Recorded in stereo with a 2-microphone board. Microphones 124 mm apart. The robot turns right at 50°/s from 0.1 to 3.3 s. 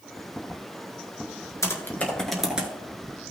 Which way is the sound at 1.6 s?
25° left (ahead or behind).